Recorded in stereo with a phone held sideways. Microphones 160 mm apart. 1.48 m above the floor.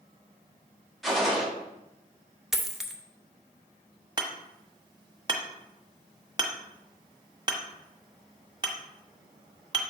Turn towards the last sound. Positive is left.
turn(degrees=-30)  # may be behind; listen again after turning